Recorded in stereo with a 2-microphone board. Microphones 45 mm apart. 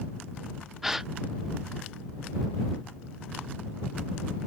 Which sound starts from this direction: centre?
A gasp, at 0.8 s.